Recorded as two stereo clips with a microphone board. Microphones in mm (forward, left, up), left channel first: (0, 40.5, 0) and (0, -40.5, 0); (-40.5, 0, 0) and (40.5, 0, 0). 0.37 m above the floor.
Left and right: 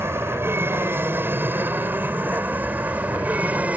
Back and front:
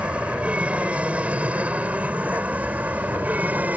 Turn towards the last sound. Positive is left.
turn(degrees=-45)